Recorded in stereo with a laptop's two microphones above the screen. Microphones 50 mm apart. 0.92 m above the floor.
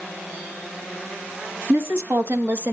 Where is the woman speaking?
60° right (ahead or behind), 1.3 m; by 2.7 s 40° right (ahead or behind), 0.8 m.